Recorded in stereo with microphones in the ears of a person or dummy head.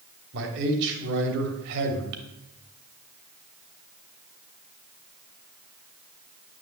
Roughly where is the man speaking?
Right.